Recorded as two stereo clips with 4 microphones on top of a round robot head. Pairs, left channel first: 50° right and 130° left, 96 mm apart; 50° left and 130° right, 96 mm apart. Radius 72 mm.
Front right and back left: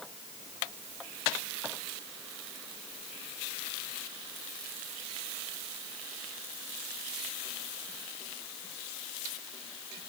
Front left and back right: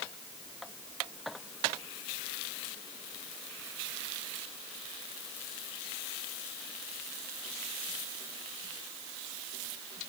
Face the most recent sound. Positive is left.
No sound to turn to.